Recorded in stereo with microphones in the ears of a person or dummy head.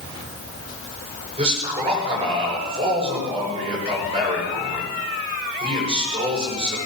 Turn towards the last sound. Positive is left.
turn(degrees=-30)  # may be behind; listen again after turning